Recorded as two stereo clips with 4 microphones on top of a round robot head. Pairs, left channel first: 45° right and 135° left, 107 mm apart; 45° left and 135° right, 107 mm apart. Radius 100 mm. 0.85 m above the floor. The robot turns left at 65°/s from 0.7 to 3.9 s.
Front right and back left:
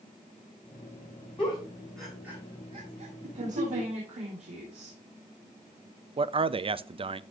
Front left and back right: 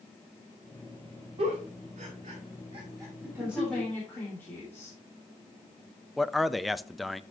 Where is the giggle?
90° right, 5.5 m; by 3.9 s 110° left, 5.5 m.